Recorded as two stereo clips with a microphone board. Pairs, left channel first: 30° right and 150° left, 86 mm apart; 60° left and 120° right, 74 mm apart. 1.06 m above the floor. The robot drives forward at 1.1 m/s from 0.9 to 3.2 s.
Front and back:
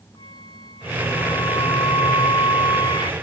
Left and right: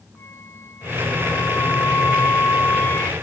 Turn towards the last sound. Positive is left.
turn(degrees=0)